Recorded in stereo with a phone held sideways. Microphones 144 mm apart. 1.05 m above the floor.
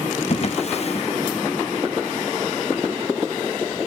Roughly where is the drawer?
Left.